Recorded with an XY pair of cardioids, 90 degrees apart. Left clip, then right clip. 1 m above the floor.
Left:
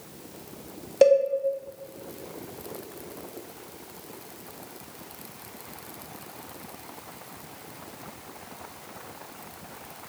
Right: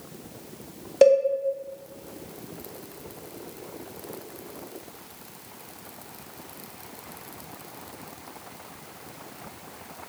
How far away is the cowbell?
About 0.7 m.